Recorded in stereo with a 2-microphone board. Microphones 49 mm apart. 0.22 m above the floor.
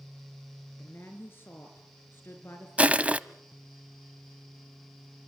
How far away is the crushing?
About 0.7 m.